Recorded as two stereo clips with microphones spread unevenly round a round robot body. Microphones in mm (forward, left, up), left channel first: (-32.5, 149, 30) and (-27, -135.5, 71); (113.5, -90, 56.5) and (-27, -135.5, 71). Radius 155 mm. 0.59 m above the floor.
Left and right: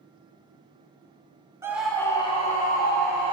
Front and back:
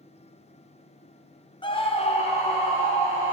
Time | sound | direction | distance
1.6 | a scream | 5° right | 0.9 m